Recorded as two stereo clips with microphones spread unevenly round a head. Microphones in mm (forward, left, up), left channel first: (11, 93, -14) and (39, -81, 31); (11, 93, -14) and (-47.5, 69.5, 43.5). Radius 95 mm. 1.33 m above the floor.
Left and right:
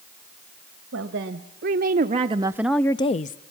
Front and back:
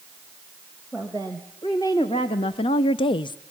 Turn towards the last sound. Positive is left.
turn(degrees=50)